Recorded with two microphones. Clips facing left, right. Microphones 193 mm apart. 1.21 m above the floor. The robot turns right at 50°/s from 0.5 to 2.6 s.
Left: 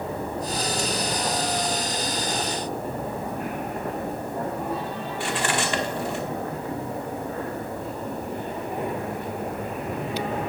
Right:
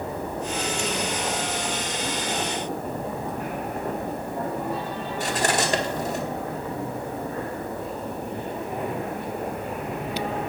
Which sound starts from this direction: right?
Cutlery clinking, at 5.2 s.